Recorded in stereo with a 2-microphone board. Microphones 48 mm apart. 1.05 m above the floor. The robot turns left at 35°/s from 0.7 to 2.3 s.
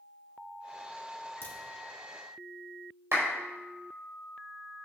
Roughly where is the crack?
Left.